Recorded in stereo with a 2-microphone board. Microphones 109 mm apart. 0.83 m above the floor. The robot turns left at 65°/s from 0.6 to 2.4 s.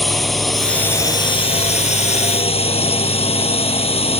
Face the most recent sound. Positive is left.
turn(degrees=60)